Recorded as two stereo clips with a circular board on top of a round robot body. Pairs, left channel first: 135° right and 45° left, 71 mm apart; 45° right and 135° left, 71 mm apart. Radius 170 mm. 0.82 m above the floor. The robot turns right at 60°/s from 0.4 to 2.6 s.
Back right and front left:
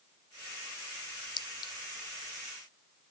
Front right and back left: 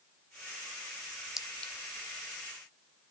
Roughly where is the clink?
Behind right.